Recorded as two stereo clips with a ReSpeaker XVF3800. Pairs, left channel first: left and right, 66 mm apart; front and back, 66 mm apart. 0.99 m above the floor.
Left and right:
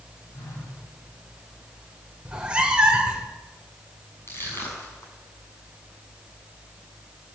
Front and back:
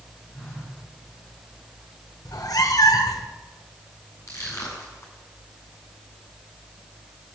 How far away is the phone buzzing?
About 9.5 m.